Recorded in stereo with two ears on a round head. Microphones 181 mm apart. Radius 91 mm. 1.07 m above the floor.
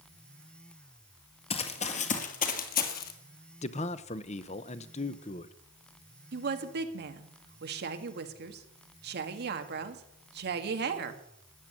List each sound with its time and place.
1.5 s running footsteps: 30° left (ahead or behind), 1.4 m; by 3.1 s 50° left (ahead or behind), 2 m
3.6 s a man speaking: 35° left (ahead or behind), 0.7 m
6.3 s a woman speaking: 55° right (ahead or behind), 1.8 m